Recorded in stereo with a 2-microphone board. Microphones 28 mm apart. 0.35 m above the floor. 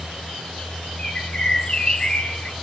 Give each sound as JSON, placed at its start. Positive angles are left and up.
{"t": 1.0, "sound": "a bird", "side_deg": 30, "distance_m": 1.5}